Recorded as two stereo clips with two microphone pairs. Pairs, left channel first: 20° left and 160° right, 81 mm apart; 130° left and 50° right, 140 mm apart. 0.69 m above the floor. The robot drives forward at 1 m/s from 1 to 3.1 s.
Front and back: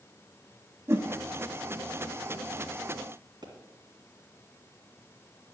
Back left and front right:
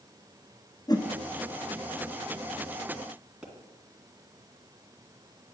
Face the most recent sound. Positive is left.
turn(degrees=-135)